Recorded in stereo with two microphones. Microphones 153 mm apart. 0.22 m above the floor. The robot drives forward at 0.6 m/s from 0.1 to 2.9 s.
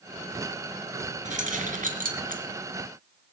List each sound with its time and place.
1.2 s keys jangling: 55° right (ahead or behind), 2 m; by 2.4 s 65° right (ahead or behind), 1.9 m